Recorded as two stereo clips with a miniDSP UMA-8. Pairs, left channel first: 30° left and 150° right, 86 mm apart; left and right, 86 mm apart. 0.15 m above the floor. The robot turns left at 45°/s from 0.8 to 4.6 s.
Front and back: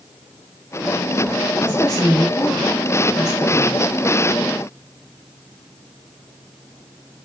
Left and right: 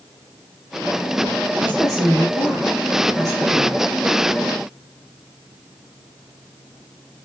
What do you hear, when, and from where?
1.6 s a woman speaking: 10° left, 1.9 m; by 3.9 s 90° right, 1.9 m